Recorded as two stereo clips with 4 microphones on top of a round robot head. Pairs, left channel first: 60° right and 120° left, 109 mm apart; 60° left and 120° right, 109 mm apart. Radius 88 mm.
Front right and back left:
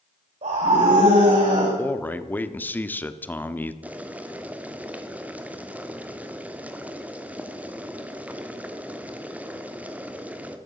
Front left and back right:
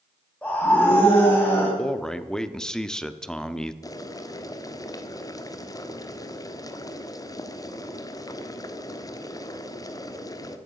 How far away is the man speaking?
About 0.9 m.